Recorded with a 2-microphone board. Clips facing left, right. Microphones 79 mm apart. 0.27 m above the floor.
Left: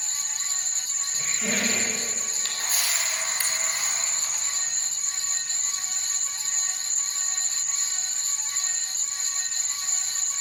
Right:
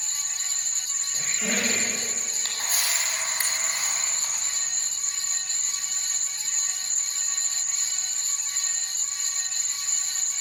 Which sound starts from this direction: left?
An insect, at 0.0 s.